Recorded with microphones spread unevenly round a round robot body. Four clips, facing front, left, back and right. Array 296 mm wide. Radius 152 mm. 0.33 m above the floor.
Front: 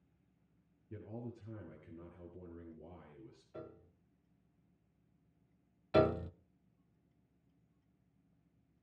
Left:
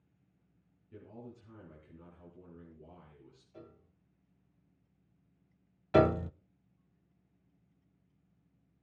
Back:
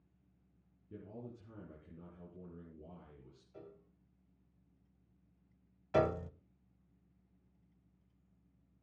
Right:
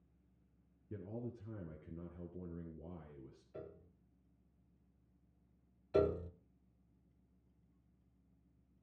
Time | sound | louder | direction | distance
0.9 | a man speaking | right 3 dB, front 2 dB | 90° right | 4 m
3.5 | a piano | right 3 dB, front 4 dB | 70° right | 1.8 m
5.9 | a piano | left 8 dB, front 2 dB | 85° left | 0.6 m